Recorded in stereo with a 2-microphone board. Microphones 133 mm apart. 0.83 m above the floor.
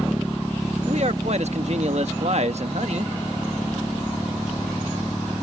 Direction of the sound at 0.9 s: 60° right (ahead or behind).